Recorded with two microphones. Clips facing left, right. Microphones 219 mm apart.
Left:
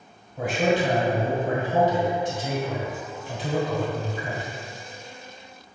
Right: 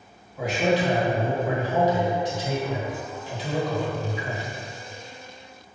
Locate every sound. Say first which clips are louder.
0.4 s a man speaking: even; 55° left (ahead or behind), 1.7 m